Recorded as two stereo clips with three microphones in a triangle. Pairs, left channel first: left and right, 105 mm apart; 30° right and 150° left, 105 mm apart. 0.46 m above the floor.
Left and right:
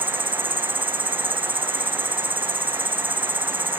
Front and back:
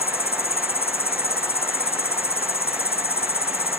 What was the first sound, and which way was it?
An insect, 55° right.